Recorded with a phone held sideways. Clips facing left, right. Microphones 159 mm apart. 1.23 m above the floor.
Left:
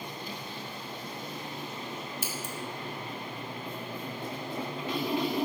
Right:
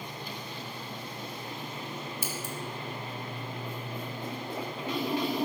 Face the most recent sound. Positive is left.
turn(degrees=70)  # may be behind; listen again after turning